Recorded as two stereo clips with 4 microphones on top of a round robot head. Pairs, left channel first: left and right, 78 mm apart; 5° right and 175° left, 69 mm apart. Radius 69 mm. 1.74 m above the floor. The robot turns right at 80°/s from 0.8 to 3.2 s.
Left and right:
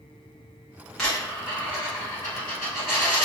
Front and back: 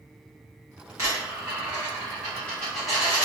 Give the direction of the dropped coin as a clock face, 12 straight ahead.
6 o'clock.